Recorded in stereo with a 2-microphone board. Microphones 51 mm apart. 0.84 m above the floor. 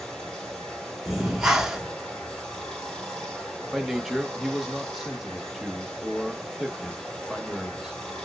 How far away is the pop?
No pop in this recording.